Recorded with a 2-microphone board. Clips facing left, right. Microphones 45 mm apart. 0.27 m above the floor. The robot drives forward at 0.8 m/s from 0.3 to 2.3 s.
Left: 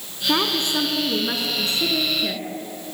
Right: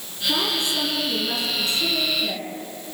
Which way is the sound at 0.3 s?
45° left (ahead or behind).